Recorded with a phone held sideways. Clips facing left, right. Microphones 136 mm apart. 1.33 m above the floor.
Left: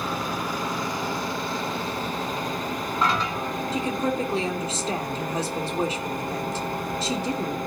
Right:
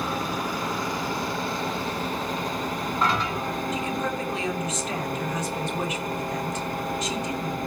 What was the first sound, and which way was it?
A woman speaking, 30° left (ahead or behind).